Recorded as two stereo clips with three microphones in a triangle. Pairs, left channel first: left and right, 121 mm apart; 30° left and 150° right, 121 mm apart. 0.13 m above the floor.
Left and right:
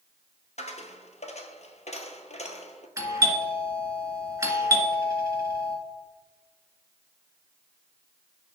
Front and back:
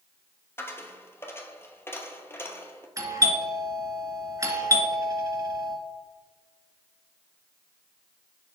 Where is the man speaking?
I don't hear a man speaking.